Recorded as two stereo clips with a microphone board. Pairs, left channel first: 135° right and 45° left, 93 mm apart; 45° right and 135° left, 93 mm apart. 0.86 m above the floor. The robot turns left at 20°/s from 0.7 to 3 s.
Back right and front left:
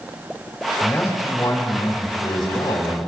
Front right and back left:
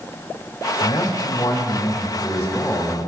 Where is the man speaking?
75° right, 3 m; by 3.0 s 120° right, 3 m.